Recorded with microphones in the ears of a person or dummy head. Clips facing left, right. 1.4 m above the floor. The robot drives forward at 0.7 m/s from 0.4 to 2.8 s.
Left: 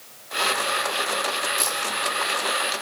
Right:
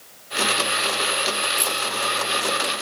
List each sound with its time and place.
1.6 s keys jangling: 15° right (ahead or behind), 2 m; by 1.9 s 10° right (ahead or behind), 2.5 m